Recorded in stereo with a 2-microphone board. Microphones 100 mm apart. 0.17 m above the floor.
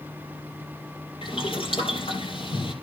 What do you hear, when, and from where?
1.2 s boiling: 70° left (ahead or behind), 5.5 m